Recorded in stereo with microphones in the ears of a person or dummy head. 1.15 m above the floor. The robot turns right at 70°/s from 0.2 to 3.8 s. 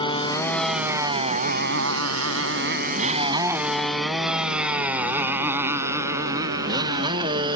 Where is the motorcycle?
25° left (ahead or behind); by 7.6 s 25° right (ahead or behind).